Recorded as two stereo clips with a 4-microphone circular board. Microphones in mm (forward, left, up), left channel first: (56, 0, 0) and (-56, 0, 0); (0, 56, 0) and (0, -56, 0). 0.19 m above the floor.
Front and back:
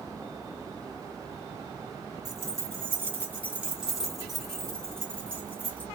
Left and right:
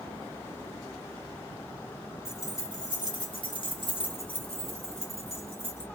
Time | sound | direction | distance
2.2 | keys jangling | 140° left | 1.4 m